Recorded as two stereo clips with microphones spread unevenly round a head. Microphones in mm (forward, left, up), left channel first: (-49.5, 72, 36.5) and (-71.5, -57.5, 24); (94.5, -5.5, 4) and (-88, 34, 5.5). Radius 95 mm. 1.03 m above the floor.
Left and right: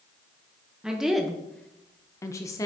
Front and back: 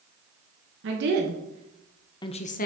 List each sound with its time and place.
0.8 s a woman speaking: straight behind, 1.0 m; by 2.7 s 15° left, 0.8 m